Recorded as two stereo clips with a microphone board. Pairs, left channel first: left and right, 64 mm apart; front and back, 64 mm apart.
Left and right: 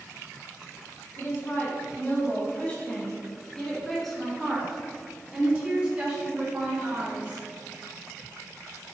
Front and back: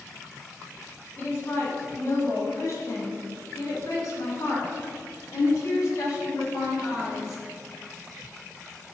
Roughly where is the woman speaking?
Ahead left.